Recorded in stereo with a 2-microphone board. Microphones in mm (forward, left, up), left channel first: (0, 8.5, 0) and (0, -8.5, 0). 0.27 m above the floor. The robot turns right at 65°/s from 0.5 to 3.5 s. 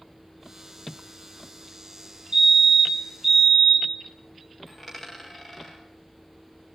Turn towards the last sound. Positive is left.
turn(degrees=-10)  # may be behind; listen again after turning